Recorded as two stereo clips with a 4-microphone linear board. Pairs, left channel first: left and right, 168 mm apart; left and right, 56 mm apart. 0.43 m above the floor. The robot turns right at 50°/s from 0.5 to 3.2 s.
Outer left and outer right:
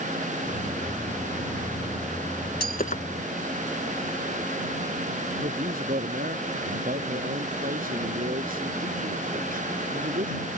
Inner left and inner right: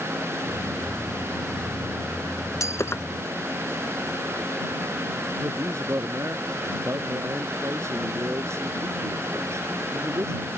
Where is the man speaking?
55° right (ahead or behind).